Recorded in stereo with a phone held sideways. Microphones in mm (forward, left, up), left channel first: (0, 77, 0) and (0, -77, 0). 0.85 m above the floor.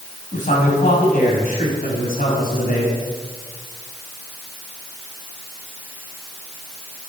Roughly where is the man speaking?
Left.